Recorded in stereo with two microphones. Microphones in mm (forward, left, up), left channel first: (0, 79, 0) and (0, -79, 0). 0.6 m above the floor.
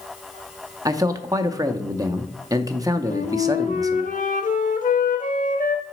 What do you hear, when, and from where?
0.8 s a man speaking: 25° right (ahead or behind), 0.6 m
3.1 s a flute: 55° left (ahead or behind), 0.9 m